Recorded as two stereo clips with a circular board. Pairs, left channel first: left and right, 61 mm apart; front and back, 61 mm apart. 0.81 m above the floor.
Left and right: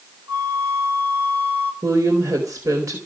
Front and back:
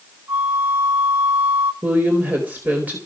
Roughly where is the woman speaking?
Behind right.